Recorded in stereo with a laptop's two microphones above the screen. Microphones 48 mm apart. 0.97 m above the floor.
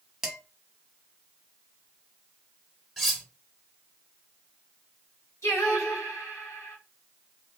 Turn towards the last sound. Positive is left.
turn(degrees=60)  # may be behind; listen again after turning